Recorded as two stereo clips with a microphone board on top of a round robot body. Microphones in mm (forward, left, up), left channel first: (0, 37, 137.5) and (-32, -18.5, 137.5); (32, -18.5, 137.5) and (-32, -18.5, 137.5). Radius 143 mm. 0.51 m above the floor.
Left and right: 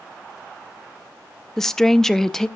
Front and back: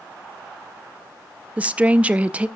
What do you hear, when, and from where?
1.6 s a woman speaking: 135° left, 0.9 m